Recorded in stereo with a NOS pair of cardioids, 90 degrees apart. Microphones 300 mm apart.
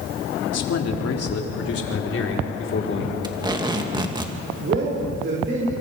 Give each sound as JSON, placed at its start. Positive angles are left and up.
{"t": 0.5, "sound": "a man speaking", "azimuth_deg": 60, "distance_m": 3.5}
{"t": 3.2, "sound": "tape being pulled", "azimuth_deg": -15, "distance_m": 2.5}
{"t": 4.6, "sound": "a man speaking", "azimuth_deg": -40, "distance_m": 7.0}